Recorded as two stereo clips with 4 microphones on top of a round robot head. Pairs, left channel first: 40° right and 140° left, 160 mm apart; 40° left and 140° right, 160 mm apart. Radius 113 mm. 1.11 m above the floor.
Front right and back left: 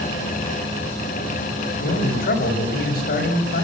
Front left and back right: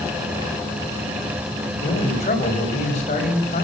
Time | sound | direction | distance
1.8 | a man speaking | 10° right | 6 m